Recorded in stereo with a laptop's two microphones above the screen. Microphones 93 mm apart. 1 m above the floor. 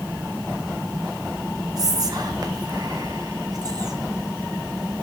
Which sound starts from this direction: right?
Whispering, at 1.8 s.